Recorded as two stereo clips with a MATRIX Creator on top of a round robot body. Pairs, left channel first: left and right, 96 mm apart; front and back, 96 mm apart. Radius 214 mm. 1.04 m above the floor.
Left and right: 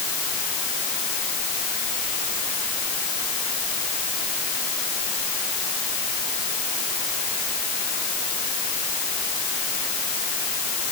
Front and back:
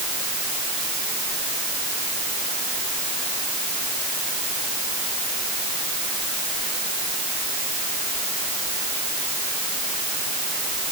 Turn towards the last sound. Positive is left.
No sound to turn to.